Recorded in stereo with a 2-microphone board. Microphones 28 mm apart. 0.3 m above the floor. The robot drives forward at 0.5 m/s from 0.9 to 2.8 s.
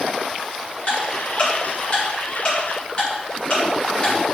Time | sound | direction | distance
0.9 | ticking | 50° left (ahead or behind) | 2.5 m